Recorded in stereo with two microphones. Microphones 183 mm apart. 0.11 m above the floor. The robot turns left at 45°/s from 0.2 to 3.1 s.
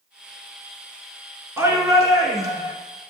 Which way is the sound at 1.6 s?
15° right (ahead or behind).